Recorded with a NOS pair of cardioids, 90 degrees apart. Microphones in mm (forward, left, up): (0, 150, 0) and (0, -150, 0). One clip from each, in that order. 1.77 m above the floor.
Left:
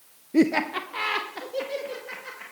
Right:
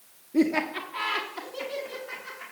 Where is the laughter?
35° left, 0.5 m.